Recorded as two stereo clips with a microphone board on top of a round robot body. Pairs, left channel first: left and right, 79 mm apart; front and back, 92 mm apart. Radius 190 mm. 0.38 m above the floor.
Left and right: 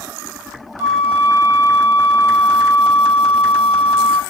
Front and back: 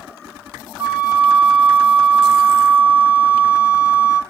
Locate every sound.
0.8 s a flute: 125° right, 1.6 m